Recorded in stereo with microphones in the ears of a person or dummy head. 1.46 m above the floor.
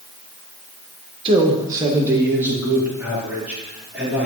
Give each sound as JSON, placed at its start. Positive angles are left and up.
{"t": 1.2, "sound": "a man speaking", "side_deg": -35, "distance_m": 1.1}